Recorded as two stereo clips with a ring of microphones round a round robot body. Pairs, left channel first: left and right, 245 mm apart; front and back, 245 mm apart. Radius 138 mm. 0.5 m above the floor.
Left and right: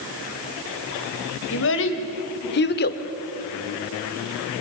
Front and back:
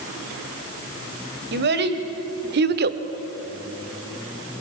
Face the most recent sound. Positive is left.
turn(degrees=140)